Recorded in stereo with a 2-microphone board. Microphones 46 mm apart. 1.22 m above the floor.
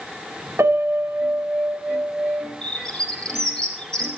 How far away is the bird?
About 4 m.